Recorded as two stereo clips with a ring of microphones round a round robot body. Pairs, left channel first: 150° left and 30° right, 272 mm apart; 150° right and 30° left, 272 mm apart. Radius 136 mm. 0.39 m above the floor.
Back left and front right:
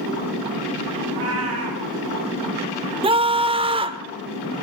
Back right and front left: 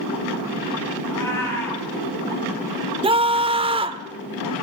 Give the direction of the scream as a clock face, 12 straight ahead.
12 o'clock.